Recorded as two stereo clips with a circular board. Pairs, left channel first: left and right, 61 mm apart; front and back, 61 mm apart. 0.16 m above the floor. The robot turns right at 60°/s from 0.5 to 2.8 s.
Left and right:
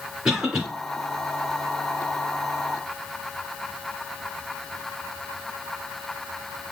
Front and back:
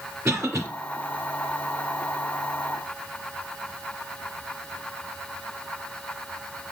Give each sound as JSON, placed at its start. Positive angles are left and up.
{"t": 0.2, "sound": "a cough", "azimuth_deg": -170, "distance_m": 2.5}